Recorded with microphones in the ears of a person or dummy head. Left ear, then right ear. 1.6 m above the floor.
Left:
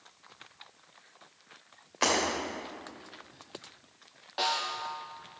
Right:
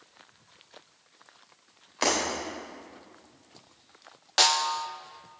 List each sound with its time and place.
2.0 s breaking glass: 5° right (ahead or behind), 3 m
4.4 s a snare drum: 65° right (ahead or behind), 0.6 m